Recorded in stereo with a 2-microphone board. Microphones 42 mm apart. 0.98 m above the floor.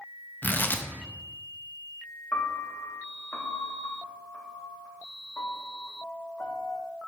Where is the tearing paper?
45° left (ahead or behind), 0.6 m.